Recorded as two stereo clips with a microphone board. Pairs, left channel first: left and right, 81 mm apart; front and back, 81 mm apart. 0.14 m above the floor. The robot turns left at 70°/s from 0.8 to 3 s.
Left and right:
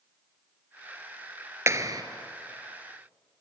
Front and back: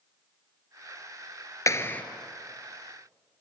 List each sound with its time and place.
1.7 s a clap: 40° right, 1.5 m; by 2.0 s 65° right, 1.5 m